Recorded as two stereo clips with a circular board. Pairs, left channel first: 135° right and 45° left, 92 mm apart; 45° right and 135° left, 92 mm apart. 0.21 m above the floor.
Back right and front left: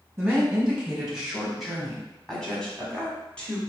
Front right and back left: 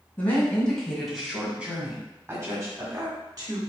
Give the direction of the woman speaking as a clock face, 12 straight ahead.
12 o'clock.